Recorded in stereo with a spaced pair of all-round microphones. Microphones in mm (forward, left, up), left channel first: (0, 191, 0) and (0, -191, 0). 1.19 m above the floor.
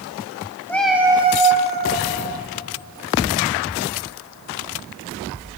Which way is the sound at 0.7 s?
5° left (ahead or behind).